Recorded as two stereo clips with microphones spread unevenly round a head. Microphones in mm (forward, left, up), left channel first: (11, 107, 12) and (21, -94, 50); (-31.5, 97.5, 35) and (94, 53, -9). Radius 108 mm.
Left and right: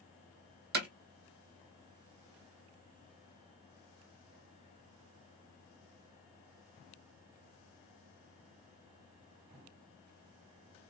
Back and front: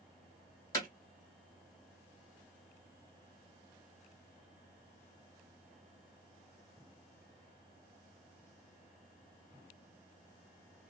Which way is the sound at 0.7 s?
130° right.